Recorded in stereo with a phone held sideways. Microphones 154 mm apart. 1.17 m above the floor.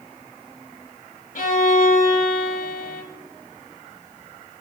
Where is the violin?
65° left (ahead or behind), 1.0 m.